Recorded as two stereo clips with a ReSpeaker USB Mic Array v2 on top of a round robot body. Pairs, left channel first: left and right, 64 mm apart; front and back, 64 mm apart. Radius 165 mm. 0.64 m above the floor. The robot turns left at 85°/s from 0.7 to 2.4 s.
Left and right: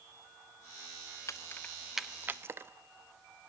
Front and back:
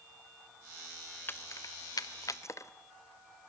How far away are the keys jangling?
About 0.9 m.